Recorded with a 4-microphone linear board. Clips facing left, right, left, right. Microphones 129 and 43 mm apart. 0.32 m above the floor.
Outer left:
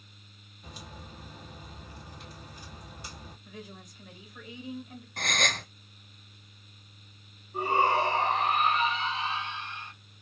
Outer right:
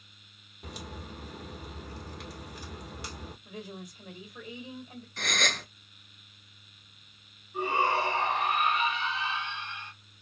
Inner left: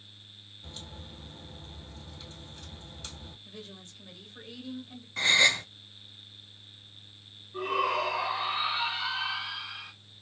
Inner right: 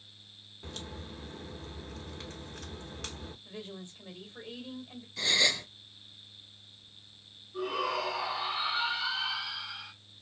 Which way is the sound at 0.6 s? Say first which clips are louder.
Outer right 4 dB, inner right 4 dB; 75° right (ahead or behind).